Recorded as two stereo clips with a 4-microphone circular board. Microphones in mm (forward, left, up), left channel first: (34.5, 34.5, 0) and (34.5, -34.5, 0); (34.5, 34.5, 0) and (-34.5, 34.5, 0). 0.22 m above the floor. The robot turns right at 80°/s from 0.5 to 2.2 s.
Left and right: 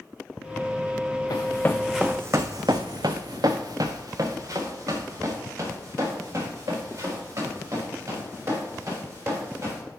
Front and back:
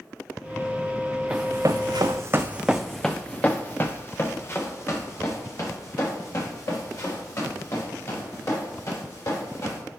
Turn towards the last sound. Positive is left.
turn(degrees=-40)